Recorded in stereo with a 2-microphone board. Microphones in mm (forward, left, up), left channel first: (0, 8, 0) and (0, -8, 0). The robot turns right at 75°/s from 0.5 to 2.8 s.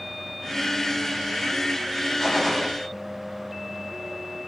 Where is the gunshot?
155° left, 9 m; by 2.7 s 165° right, 9 m.